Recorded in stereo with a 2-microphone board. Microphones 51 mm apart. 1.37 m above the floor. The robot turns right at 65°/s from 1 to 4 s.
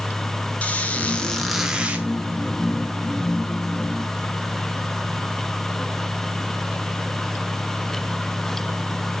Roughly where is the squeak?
Behind left.